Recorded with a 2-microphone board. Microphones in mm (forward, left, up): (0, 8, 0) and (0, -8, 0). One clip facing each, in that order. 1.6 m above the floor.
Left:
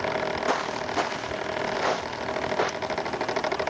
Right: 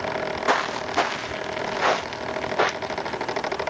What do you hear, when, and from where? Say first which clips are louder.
0.5 s footsteps: right 4 dB; 35° right (ahead or behind)